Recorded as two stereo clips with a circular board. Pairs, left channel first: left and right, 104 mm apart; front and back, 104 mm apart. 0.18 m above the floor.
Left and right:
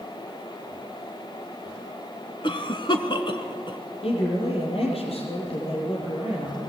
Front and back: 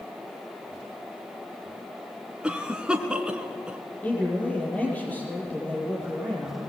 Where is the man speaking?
75° left, 5.5 m.